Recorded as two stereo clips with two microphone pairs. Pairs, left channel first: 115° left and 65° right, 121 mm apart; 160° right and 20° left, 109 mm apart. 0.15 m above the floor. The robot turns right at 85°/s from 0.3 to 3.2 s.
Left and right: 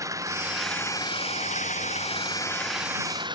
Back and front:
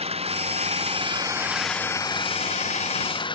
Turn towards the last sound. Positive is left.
turn(degrees=-120)